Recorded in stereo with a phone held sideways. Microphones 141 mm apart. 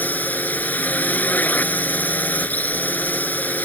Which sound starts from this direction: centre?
A drone, at 0.0 s.